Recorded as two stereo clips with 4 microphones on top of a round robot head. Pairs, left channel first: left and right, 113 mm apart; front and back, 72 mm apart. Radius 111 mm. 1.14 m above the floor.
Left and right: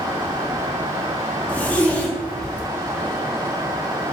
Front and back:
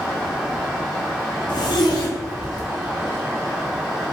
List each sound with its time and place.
1.5 s a zipper: 10° left, 1.2 m